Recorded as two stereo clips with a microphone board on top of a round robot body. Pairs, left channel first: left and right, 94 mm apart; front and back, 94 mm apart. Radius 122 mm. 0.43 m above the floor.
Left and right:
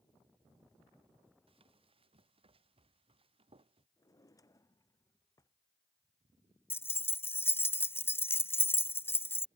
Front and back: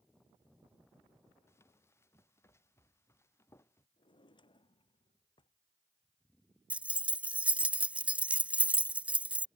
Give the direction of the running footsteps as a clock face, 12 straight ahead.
2 o'clock.